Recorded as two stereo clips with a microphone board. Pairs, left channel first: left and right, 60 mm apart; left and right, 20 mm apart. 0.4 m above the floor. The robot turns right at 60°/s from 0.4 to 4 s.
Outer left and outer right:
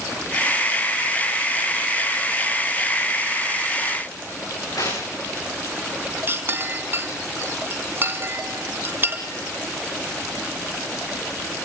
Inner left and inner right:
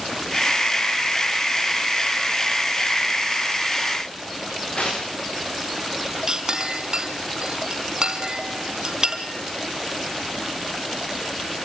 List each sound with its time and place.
4.8 s tearing paper: 70° left (ahead or behind), 9.5 m
6.3 s a clink: 35° right (ahead or behind), 2 m